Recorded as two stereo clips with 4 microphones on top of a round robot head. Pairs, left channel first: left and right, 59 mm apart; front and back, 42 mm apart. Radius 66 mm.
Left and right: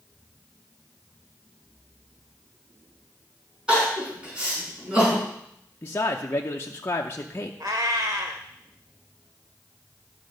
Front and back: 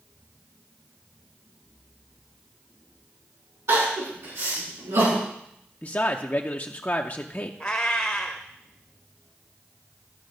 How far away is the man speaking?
About 0.7 m.